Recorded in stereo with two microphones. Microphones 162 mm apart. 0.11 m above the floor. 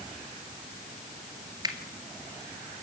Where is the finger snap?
25° right (ahead or behind), 2 m.